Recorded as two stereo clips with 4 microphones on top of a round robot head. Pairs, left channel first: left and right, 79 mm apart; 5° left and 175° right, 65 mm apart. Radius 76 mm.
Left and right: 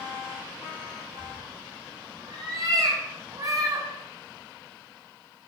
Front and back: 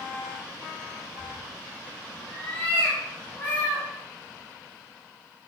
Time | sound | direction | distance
1.2 | a cat meowing | 65° right | 7 m